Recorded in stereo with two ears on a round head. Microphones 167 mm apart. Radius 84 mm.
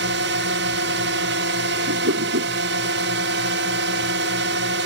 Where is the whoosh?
75° right (ahead or behind).